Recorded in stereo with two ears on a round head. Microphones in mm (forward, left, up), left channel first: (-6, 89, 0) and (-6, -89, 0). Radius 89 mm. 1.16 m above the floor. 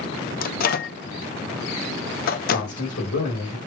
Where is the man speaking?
85° left, 4 m.